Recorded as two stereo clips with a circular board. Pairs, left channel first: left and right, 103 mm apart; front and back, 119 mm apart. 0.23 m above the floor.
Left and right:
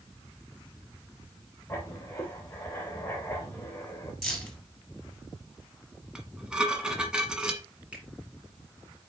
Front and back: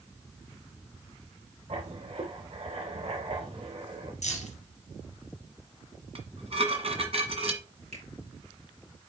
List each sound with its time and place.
1.7 s writing: 155° left, 2.5 m
4.2 s keys jangling: straight ahead, 3 m
6.2 s dishes clattering: 170° right, 1.5 m
7.9 s a finger snap: 170° right, 4 m